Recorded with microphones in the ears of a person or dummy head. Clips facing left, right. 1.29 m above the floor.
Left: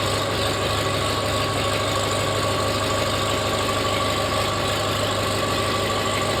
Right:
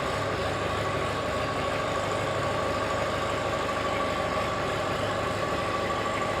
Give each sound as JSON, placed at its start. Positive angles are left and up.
{"t": 0.0, "sound": "an engine running", "side_deg": 55, "distance_m": 1.1}